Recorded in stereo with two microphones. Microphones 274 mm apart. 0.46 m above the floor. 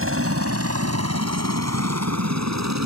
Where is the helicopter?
50° right (ahead or behind); by 2.9 s 75° right (ahead or behind).